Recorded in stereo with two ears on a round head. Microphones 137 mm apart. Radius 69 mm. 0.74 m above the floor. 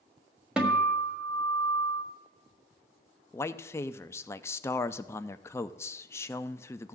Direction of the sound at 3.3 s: 20° left (ahead or behind).